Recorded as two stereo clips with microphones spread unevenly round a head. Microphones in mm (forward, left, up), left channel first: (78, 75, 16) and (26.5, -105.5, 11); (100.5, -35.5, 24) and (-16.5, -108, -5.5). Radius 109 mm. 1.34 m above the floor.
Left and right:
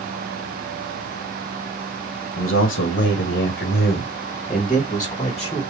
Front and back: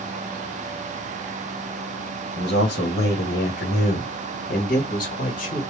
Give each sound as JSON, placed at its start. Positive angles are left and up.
{"t": 2.4, "sound": "a man speaking", "azimuth_deg": 70, "distance_m": 1.5}